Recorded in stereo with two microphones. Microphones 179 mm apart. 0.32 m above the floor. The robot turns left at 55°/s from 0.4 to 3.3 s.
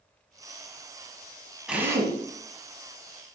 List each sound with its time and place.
1.7 s a drill: 5° right (ahead or behind), 0.9 m; by 2.2 s 30° right (ahead or behind), 0.9 m